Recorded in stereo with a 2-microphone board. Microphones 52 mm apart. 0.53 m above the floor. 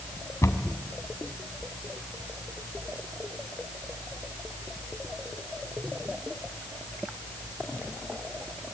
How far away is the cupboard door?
About 2.5 m.